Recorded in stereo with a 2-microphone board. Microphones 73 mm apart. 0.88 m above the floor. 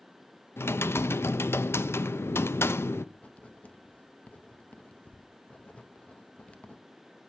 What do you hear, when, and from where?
0.6 s typing on a keyboard: 35° left (ahead or behind), 0.5 m
3.1 s writing: 15° left (ahead or behind), 1.0 m